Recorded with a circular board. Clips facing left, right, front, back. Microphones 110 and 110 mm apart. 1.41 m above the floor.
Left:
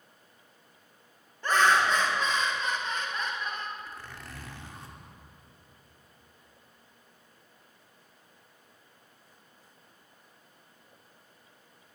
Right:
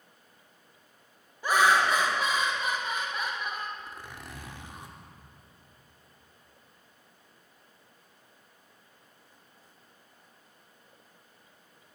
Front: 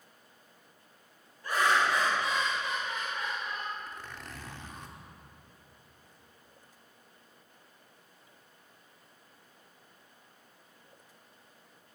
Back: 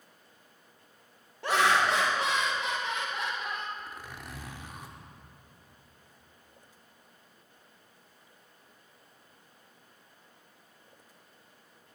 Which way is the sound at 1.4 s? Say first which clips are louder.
Right 1 dB, back 2 dB; 170° right.